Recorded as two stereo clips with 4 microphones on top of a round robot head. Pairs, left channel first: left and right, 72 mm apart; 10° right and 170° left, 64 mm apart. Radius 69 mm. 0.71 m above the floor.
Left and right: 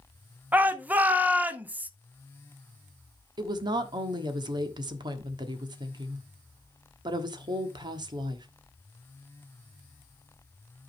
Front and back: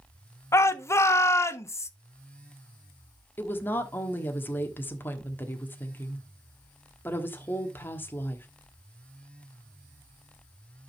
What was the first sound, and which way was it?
A shout, 30° right.